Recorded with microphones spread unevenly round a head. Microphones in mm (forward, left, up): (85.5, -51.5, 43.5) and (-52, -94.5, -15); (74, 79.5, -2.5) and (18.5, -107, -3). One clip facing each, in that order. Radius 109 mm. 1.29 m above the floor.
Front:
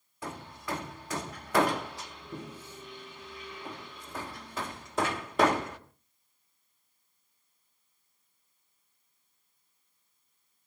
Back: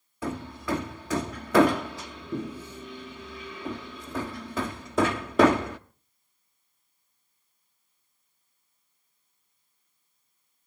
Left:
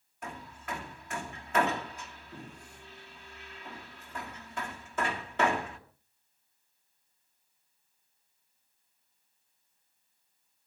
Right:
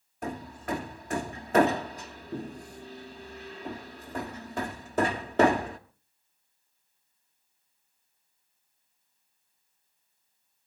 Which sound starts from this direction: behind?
Hammering, at 0.2 s.